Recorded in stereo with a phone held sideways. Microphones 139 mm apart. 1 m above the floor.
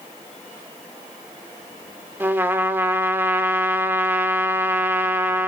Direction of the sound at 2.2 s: 15° right (ahead or behind).